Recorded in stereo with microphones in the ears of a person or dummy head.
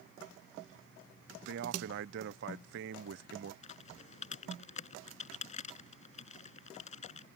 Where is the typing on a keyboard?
45° left (ahead or behind).